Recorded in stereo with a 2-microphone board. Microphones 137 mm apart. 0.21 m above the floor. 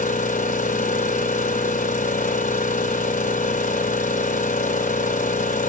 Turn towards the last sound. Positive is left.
turn(degrees=85)